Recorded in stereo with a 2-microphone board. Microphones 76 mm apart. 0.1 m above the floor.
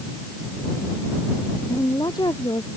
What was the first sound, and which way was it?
A woman speaking, 75° left (ahead or behind).